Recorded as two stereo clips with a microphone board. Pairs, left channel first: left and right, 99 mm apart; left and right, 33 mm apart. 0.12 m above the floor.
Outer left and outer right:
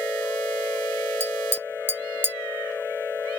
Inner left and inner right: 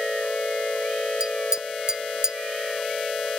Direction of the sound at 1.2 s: 20° right (ahead or behind).